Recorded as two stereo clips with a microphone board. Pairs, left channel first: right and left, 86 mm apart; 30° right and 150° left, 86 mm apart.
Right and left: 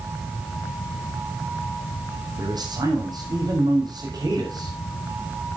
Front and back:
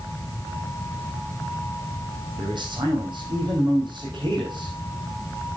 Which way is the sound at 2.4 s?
125° left.